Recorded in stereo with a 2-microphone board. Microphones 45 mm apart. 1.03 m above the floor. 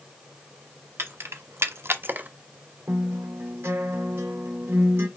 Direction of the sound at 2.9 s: 60° right (ahead or behind).